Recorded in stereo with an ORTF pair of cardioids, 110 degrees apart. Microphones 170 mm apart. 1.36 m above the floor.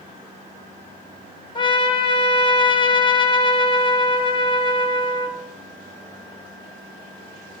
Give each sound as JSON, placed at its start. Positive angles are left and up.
{"t": 1.6, "sound": "a trumpet", "azimuth_deg": 30, "distance_m": 1.6}